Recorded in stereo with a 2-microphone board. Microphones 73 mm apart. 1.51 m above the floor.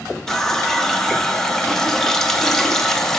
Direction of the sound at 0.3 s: 5° left (ahead or behind).